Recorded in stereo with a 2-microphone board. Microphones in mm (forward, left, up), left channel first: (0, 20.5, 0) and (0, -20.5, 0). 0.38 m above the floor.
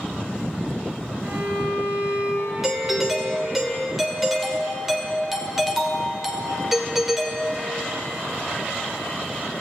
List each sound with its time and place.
1.2 s a violin: 45° right (ahead or behind), 4.5 m
2.6 s a doorbell: 5° right (ahead or behind), 1.3 m